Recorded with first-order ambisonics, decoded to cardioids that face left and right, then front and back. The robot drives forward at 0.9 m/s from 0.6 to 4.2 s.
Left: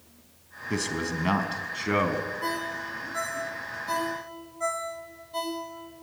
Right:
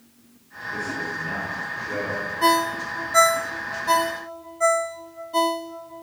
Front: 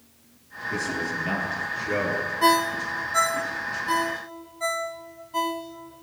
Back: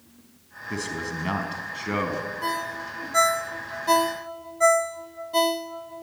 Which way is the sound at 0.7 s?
105° left.